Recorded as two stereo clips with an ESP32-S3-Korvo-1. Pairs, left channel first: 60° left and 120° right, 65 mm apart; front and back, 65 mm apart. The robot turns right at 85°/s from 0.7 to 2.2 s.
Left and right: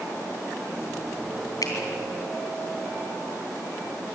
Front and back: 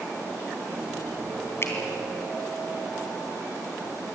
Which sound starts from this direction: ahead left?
A finger snap, at 1.6 s.